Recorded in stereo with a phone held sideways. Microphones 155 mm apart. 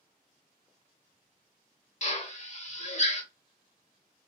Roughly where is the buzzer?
I don't hear a buzzer.